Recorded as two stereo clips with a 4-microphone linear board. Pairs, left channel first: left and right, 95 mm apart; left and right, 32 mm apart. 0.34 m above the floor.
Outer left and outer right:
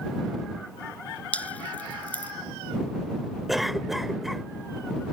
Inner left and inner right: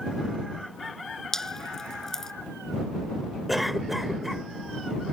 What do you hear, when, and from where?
1.3 s dripping: 15° left (ahead or behind)
3.5 s a cough: centre (ahead or behind)